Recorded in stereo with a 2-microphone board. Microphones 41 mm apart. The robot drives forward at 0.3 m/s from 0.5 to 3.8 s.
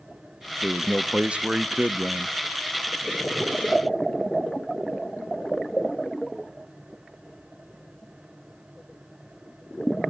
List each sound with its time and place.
0.6 s a man speaking: 20° right (ahead or behind), 0.7 m; by 2.4 s 25° right (ahead or behind), 0.6 m